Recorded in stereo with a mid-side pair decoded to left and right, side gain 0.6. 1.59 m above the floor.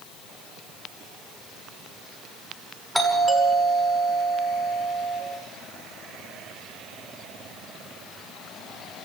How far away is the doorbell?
About 6.5 m.